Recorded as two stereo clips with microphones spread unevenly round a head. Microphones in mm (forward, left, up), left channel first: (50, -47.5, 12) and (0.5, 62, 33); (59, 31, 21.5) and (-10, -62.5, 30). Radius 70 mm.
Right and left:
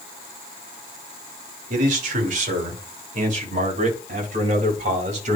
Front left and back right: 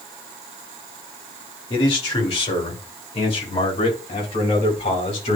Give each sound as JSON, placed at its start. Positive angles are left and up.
{"t": 1.7, "sound": "a man speaking", "azimuth_deg": 100, "distance_m": 2.5}